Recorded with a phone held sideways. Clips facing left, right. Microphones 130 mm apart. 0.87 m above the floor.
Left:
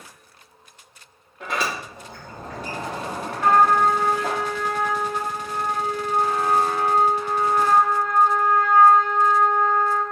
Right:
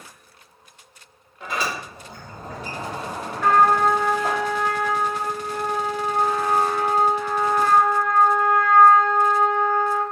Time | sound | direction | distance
1.4 | a sliding door | 60° left (ahead or behind) | 1.4 m
3.4 | a trumpet | 20° left (ahead or behind) | 1.6 m